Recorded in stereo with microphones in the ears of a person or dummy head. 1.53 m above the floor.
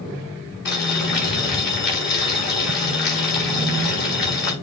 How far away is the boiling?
About 6 m.